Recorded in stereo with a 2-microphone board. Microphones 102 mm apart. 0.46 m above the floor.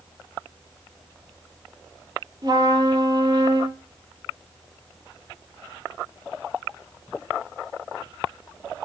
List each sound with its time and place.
2.4 s a trumpet: 35° right (ahead or behind), 5 m